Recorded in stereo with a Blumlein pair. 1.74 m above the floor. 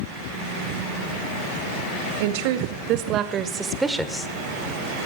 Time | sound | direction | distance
2.2 | a woman speaking | 50° right | 2 m